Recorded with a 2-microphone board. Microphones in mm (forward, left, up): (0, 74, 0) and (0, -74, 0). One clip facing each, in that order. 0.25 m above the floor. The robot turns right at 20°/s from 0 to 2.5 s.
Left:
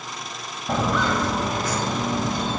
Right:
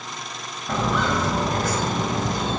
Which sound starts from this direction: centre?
Footsteps, at 0.7 s.